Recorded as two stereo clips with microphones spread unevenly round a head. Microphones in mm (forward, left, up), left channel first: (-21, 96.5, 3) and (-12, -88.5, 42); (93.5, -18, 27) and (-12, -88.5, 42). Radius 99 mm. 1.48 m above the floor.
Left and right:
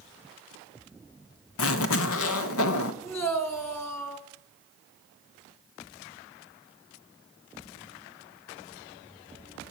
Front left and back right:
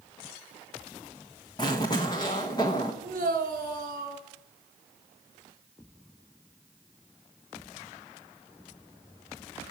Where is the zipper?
105° left, 1.1 m.